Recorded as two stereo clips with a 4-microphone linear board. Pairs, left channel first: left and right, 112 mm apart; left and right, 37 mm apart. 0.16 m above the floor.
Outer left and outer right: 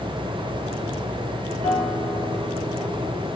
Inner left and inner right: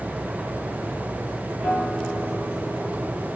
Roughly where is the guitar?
Right.